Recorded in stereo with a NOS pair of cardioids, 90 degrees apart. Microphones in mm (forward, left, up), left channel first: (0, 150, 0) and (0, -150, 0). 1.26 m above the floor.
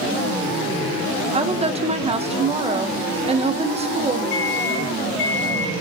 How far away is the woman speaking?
About 1.3 m.